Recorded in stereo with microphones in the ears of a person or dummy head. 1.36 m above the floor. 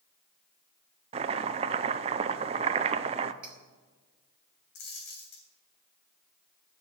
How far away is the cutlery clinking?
About 2.5 m.